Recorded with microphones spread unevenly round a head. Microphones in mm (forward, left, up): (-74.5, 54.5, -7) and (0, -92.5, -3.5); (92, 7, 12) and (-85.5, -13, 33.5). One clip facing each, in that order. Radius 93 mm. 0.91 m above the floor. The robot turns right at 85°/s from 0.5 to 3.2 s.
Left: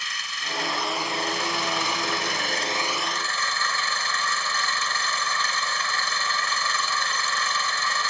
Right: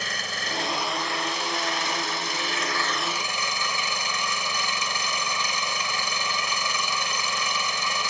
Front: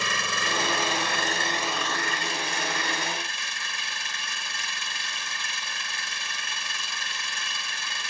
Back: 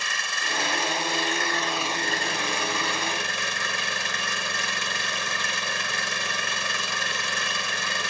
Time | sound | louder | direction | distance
0.0 | an engine running | right 6 dB, front 5 dB | 10° right | ?